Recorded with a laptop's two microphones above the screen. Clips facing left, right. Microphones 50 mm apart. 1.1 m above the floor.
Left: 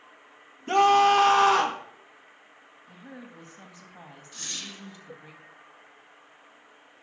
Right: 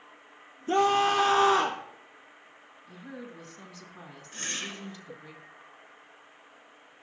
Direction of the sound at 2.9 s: 30° left (ahead or behind).